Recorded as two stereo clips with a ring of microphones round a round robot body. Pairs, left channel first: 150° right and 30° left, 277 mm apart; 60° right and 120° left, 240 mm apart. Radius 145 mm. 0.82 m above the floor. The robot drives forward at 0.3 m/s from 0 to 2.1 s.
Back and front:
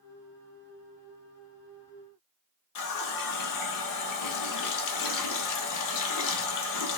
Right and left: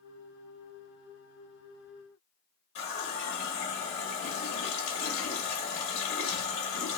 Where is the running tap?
130° right, 0.8 m.